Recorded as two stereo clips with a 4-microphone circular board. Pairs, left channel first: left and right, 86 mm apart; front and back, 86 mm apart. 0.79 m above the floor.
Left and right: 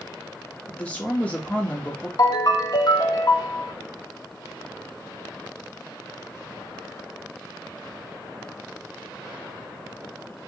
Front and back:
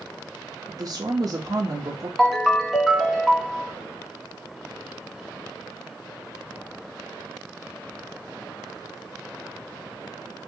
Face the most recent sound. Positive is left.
turn(degrees=85)